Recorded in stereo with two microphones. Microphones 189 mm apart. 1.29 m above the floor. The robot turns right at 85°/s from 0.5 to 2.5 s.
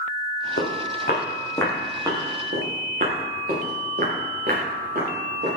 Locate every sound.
0.6 s footsteps: 70° left (ahead or behind), 4 m; by 5.6 s 55° right (ahead or behind), 8 m